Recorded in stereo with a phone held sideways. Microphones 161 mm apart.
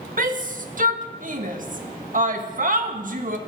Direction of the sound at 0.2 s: 55° right (ahead or behind).